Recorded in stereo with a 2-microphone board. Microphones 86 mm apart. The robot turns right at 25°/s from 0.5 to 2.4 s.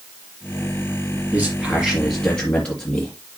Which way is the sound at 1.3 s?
5° right (ahead or behind).